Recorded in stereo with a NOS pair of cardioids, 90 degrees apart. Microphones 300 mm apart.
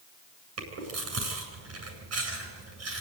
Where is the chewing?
55° right, 8.5 m.